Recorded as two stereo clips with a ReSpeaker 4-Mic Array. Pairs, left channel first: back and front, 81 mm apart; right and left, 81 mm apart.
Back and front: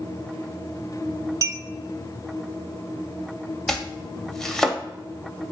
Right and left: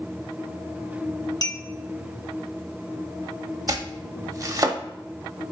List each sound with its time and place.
1.4 s a clink: 50° right, 0.6 m
3.7 s chopping: 95° left, 0.6 m